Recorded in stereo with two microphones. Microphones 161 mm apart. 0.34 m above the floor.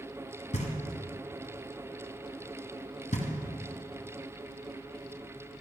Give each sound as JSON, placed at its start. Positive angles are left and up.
{"t": 0.5, "sound": "knocking", "side_deg": 45, "distance_m": 1.9}